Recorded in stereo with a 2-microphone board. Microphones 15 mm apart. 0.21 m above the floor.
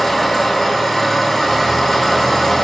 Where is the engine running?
35° left (ahead or behind), 1.0 m.